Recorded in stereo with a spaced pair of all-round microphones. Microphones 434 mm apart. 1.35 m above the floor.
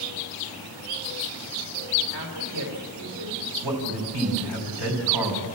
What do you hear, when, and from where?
2.1 s a woman speaking: 60° left (ahead or behind), 4 m
3.6 s a man speaking: 75° right (ahead or behind), 4 m